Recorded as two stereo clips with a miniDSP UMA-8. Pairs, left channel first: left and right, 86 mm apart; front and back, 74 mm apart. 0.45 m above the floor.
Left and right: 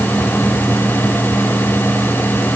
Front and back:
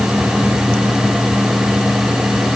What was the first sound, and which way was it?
Only background noise.